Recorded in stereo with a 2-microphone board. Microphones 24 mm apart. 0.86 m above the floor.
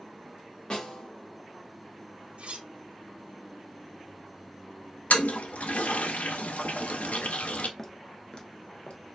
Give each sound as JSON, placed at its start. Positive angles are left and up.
{"t": 0.7, "sound": "a snare drum", "side_deg": 35, "distance_m": 1.6}
{"t": 2.4, "sound": "cutlery clinking", "side_deg": -50, "distance_m": 0.6}
{"t": 5.1, "sound": "a toilet flushing", "side_deg": 65, "distance_m": 0.6}
{"t": 7.8, "sound": "footsteps", "side_deg": 15, "distance_m": 0.8}